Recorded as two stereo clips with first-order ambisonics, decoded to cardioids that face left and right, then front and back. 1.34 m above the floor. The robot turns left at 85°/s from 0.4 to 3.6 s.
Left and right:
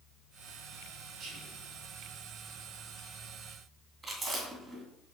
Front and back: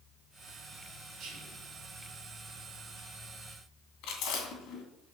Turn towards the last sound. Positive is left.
turn(degrees=-15)